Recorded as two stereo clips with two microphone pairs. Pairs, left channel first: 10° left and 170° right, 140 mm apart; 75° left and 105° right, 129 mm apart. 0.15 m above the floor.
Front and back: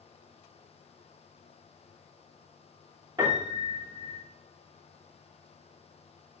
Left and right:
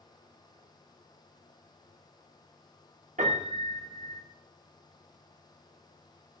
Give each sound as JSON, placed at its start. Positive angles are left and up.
{"t": 3.2, "sound": "a piano", "azimuth_deg": -105, "distance_m": 5.0}